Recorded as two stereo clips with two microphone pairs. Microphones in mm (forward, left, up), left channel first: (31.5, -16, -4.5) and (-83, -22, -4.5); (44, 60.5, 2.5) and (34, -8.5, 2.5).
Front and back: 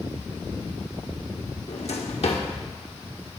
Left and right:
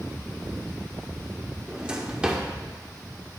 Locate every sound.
1.7 s a drawer: 20° right, 1.1 m